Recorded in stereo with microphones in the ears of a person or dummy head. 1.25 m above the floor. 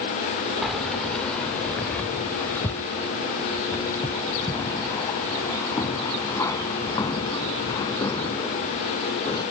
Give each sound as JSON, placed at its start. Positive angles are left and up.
{"t": 0.6, "sound": "keys jangling", "side_deg": -5}